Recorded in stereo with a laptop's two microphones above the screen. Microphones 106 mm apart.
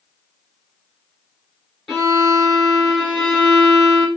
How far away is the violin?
About 2 m.